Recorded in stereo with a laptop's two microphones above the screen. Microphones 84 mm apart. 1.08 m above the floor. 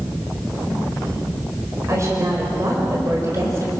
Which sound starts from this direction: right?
A woman speaking, at 1.9 s.